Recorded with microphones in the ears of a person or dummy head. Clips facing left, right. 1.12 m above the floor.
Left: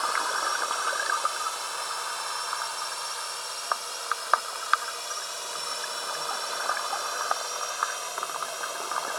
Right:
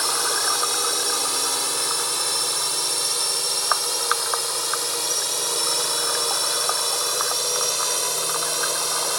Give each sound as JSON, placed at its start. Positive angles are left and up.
{"t": 0.0, "sound": "a drone", "side_deg": -70}